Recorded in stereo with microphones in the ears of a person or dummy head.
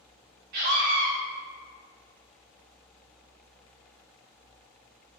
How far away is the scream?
About 0.9 m.